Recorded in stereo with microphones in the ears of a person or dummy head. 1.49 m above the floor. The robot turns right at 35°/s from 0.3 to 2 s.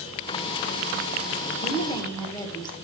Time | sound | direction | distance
1.6 | a woman speaking | 35° left (ahead or behind) | 1.6 m